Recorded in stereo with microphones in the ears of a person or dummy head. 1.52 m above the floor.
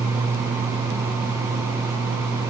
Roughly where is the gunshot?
I don't hear a gunshot.